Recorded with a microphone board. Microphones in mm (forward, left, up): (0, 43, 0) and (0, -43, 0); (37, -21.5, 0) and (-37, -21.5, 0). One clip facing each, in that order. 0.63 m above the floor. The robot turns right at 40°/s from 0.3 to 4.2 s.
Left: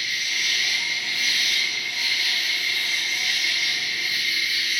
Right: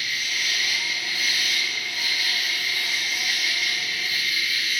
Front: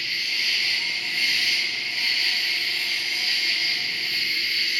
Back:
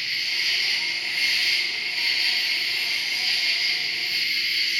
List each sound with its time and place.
0.0 s an insect: 140° right, 1.5 m; by 4.8 s 20° left, 1.5 m